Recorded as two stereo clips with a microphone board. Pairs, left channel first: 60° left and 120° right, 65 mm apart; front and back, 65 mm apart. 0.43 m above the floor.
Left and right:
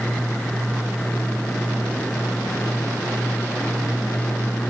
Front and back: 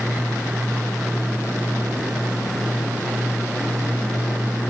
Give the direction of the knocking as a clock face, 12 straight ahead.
I don't hear knocking.